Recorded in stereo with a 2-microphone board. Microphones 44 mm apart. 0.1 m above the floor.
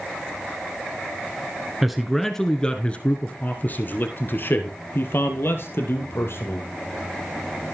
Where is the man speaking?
5° right (ahead or behind), 1.1 m; by 6.7 s 65° left (ahead or behind), 3 m.